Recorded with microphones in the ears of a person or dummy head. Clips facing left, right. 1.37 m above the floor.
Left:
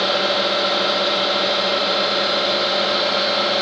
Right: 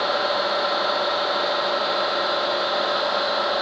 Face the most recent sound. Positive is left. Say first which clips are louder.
# left 3 dB
turn(degrees=40)  # may be behind; listen again after turning